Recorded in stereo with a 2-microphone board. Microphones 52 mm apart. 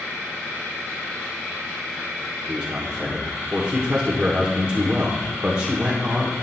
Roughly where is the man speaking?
Right.